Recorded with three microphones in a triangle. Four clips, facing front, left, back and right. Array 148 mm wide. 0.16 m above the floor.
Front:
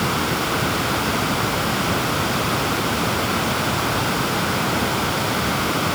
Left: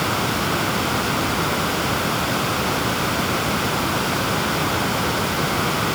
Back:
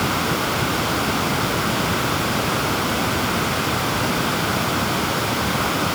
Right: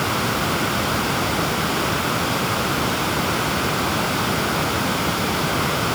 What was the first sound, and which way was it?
Only background noise.